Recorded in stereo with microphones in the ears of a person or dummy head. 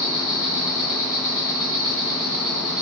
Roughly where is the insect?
Centre.